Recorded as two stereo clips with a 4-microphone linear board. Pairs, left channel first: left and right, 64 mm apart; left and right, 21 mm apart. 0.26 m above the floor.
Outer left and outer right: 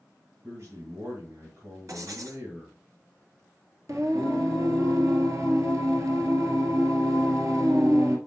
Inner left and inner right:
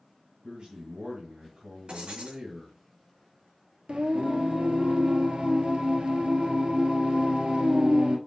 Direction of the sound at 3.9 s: 55° right (ahead or behind).